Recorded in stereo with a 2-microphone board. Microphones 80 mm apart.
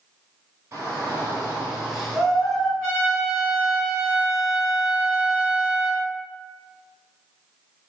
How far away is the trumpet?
About 1.8 m.